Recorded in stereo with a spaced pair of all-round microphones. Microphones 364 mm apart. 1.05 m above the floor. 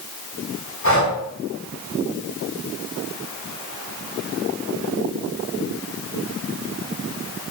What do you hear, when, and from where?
0.8 s breathing: 35° left (ahead or behind), 6.5 m